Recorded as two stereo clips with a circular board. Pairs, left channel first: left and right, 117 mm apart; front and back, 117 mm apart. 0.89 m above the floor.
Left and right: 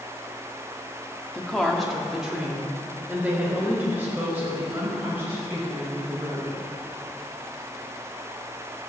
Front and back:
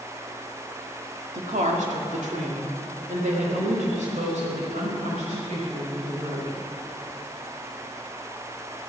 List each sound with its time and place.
1.3 s a woman speaking: 175° left, 1.8 m; by 6.6 s 160° right, 7 m